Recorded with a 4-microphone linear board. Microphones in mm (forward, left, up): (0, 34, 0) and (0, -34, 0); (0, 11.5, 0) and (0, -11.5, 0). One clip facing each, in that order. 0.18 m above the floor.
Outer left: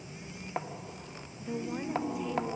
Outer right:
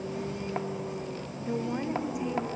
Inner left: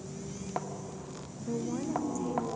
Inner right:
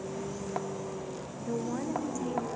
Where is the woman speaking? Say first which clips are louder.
Outer right 4 dB, even; 20° right (ahead or behind).